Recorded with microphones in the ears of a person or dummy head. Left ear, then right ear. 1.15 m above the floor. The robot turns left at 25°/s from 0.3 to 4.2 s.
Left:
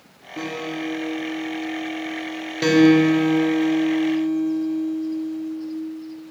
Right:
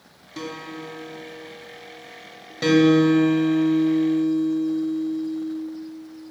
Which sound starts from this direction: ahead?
A guitar, at 2.6 s.